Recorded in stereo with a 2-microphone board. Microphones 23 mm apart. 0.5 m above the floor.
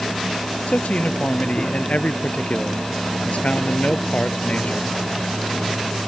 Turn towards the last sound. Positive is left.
turn(degrees=80)